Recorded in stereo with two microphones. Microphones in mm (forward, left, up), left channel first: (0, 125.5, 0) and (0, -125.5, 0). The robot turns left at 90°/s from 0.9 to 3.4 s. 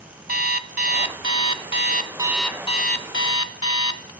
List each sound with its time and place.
0.3 s an alarm clock: 45° right, 0.7 m; by 4.1 s 90° left, 0.7 m